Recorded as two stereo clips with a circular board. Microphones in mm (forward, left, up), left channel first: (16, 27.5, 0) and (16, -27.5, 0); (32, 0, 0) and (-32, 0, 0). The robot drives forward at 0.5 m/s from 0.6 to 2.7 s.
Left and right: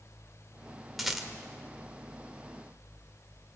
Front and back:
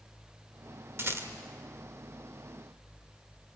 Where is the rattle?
175° right, 1.7 m.